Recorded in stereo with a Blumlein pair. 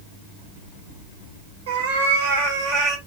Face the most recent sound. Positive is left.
turn(degrees=-15)